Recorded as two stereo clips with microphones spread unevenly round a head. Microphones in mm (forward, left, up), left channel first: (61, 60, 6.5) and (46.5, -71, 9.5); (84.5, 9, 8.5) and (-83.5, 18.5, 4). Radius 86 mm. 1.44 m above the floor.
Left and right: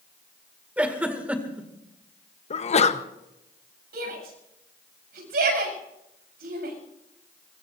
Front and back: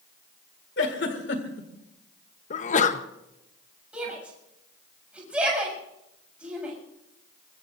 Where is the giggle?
20° right, 2 m.